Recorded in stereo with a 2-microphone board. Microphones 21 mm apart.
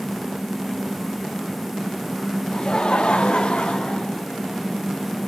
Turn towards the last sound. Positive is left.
turn(degrees=50)  # may be behind; listen again after turning